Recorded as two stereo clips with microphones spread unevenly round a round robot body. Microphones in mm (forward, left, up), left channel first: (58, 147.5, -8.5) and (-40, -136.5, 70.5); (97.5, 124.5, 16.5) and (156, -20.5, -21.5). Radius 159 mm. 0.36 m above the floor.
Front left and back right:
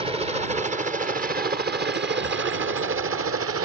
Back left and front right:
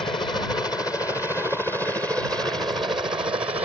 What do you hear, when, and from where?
0.0 s a helicopter: 170° left; by 3.6 s 110° right